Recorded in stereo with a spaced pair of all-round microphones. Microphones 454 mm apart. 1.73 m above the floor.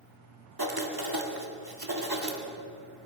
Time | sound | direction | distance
0.6 | writing | 50° right (ahead or behind) | 1.7 m